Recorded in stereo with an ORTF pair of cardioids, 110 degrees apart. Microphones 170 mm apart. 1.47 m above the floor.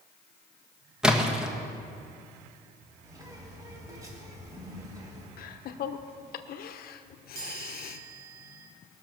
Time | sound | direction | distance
1.0 | a splash | 5° right | 1.5 m
3.0 | a bird | 20° right | 3.5 m
5.4 | laughter | 60° left | 1.1 m
7.3 | a chime | 50° right | 4 m